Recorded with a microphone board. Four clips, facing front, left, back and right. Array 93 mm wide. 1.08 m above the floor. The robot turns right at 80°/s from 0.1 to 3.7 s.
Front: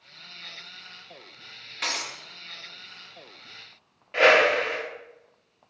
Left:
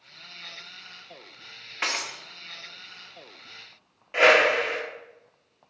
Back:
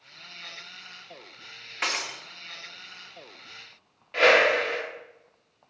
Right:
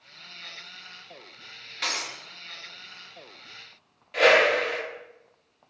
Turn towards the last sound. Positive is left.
turn(degrees=65)